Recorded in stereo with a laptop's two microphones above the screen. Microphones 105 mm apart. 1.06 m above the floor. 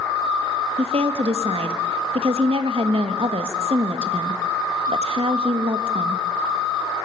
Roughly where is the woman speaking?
Right.